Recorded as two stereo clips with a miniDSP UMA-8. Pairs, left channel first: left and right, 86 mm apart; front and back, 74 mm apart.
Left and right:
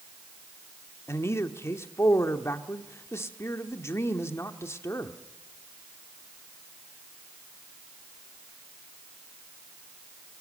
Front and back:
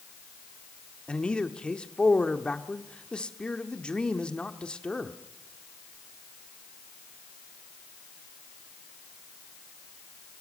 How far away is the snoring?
No snoring in this recording.